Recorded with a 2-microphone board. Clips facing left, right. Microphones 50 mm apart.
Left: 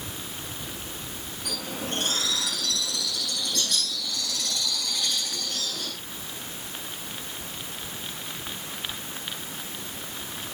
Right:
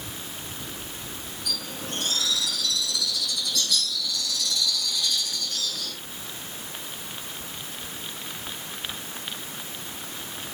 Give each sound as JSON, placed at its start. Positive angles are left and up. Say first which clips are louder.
{"t": 1.4, "sound": "a bird", "louder": "left 2 dB", "side_deg": 65, "distance_m": 6.5}